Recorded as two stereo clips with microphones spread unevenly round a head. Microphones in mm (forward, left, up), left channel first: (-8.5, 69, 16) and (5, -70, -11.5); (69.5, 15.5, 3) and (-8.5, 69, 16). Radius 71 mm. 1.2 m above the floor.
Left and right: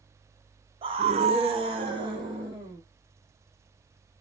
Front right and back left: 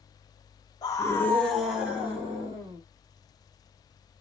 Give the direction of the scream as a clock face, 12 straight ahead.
2 o'clock.